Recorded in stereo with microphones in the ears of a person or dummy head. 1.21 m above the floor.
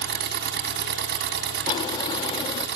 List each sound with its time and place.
0.0 s an engine running: 60° right (ahead or behind), 2.5 m
1.7 s a drawer: 35° left (ahead or behind), 0.8 m